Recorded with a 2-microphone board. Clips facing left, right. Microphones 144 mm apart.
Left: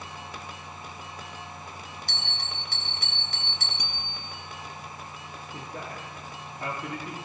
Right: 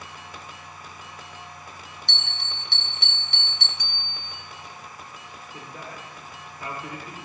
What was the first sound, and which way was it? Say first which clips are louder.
A bell: left 1 dB; 45° left (ahead or behind).